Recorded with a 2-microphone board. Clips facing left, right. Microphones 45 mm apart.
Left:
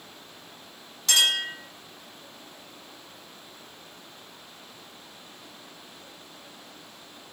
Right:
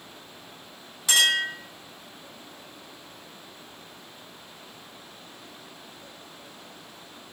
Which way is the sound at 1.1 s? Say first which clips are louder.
Right 2 dB; 10° right (ahead or behind).